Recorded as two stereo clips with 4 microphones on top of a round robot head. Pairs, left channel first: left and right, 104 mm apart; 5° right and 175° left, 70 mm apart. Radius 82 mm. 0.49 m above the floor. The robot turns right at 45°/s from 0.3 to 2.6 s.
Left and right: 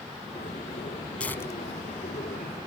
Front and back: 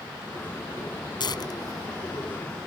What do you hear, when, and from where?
1.2 s tearing paper: 10° left; by 2.6 s 70° left